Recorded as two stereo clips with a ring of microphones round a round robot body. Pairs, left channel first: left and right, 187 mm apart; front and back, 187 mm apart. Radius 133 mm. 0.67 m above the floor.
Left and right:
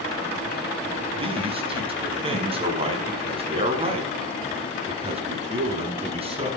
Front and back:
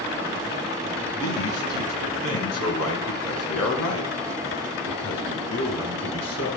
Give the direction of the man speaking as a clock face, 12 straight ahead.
1 o'clock.